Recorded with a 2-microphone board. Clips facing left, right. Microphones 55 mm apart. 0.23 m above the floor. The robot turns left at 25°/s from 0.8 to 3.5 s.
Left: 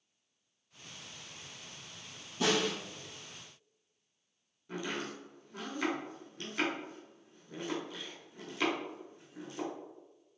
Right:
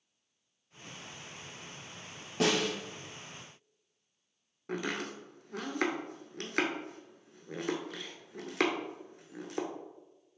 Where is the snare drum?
70° right (ahead or behind), 1.7 m; by 2.7 s 60° right (ahead or behind), 1.7 m.